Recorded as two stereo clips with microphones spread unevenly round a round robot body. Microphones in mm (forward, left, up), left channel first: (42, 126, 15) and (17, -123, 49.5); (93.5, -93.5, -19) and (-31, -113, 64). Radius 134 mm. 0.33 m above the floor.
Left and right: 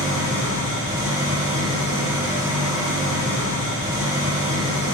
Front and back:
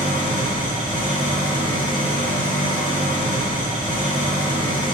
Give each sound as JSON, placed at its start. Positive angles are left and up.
{"t": 0.0, "sound": "an engine running", "azimuth_deg": -20, "distance_m": 4.0}